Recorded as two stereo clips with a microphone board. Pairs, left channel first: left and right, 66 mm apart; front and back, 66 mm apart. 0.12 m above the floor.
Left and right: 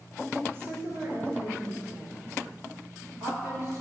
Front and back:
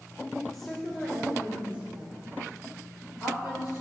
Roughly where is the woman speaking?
Right.